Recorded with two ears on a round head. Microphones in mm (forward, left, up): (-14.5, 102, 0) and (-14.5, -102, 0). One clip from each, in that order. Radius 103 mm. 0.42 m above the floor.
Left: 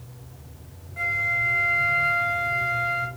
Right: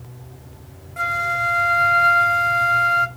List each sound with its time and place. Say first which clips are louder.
1.0 s a flute: right 3 dB; 40° right (ahead or behind), 0.6 m